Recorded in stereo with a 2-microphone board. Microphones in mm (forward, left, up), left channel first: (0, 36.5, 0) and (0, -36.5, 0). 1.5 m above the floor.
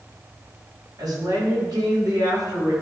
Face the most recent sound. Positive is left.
turn(degrees=-70)  # may be behind; listen again after turning